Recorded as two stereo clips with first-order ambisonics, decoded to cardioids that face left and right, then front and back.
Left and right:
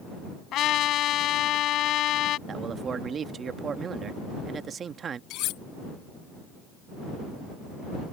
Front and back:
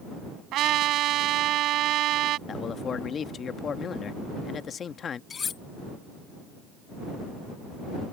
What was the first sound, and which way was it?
A trumpet, 135° left.